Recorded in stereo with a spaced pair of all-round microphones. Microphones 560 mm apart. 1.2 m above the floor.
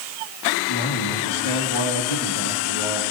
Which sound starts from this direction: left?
A man speaking, at 0.7 s.